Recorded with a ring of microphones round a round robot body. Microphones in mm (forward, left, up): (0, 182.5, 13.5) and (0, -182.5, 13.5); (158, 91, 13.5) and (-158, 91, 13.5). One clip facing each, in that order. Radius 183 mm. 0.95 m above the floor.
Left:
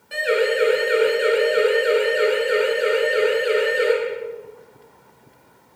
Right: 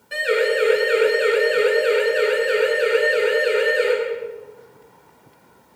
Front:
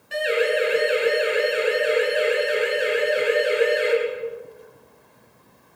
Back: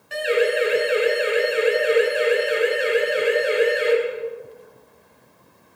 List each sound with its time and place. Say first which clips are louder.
0.1 s a siren: even, back 2 dB; straight behind, 9 m; by 3.9 s 170° left, 11.5 m